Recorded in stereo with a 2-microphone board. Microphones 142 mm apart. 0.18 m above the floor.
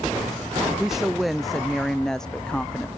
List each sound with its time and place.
0.8 s a woman speaking: 5° right (ahead or behind); by 2.9 s 10° left (ahead or behind)